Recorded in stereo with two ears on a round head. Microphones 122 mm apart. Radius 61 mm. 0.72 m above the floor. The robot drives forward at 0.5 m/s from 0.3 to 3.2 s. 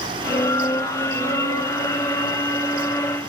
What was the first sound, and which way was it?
Only background noise.